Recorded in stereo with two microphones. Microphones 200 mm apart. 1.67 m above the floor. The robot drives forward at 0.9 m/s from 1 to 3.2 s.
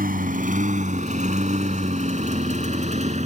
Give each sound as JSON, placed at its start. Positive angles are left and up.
{"t": 0.0, "sound": "a lawn mower", "side_deg": -50}